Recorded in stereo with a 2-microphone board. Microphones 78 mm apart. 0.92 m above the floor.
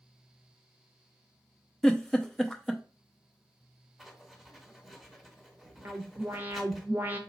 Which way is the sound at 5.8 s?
25° right (ahead or behind).